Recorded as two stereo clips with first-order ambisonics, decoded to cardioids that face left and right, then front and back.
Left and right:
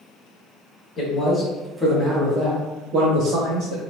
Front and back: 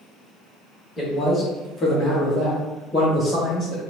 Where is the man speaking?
65° left, 1.0 m; by 3.8 s 70° right, 1.7 m.